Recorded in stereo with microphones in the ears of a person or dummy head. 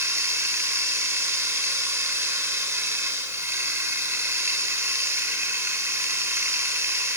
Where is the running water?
10° right (ahead or behind), 3 m.